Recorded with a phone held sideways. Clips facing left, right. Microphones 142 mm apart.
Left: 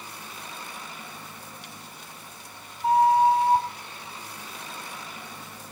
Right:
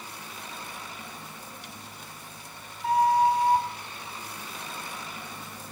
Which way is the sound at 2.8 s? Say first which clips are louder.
Left 3 dB; 25° left (ahead or behind).